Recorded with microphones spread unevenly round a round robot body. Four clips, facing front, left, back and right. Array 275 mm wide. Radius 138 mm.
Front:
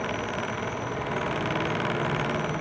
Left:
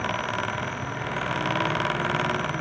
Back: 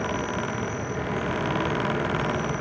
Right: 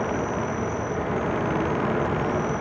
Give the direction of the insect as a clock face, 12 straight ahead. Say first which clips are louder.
Right 3 dB, back 2 dB; 4 o'clock.